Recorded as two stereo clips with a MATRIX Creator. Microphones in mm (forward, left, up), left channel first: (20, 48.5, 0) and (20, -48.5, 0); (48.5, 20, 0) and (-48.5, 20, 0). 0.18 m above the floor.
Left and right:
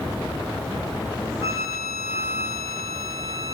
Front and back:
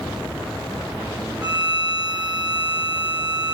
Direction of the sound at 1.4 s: 25° right.